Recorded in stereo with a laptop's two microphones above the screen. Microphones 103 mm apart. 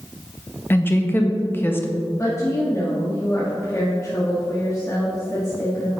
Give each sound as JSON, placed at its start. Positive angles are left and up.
{"t": 0.7, "sound": "a woman speaking", "side_deg": 20, "distance_m": 0.7}
{"t": 2.2, "sound": "a woman speaking", "side_deg": 30, "distance_m": 1.9}